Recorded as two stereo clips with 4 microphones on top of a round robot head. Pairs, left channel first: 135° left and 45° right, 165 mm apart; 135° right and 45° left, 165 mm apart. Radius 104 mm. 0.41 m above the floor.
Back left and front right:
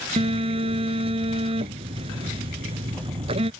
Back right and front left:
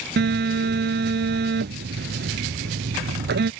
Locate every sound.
0.2 s a phone buzzing: 15° left